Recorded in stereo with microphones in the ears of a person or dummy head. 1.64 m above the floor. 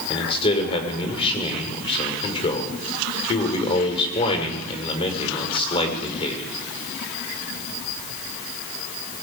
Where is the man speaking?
30° left (ahead or behind), 6 m.